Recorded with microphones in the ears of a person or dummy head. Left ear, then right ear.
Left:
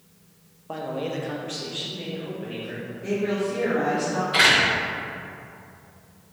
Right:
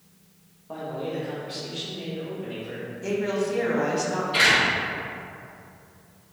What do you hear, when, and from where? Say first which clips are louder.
0.7 s a man speaking: left 2 dB; 80° left, 0.6 m; by 2.9 s 10° left (ahead or behind), 1.2 m
3.0 s a woman speaking: even; 70° right (ahead or behind), 0.9 m
4.3 s a door slam: left 2 dB; 35° left (ahead or behind), 1.6 m